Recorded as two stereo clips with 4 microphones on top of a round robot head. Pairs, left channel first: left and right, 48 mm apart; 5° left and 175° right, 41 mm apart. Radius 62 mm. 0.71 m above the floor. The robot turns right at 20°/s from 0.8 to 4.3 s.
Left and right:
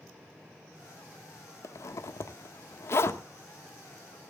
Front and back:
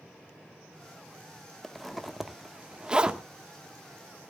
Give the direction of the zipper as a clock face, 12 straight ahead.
9 o'clock.